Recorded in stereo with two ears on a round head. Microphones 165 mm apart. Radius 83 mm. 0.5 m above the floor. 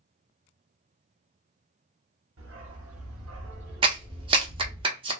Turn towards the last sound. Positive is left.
turn(degrees=-25)  # may be behind; listen again after turning